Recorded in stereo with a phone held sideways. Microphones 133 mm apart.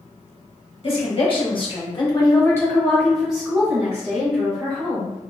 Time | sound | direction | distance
0.8 | a woman speaking | 45° left (ahead or behind) | 1.2 m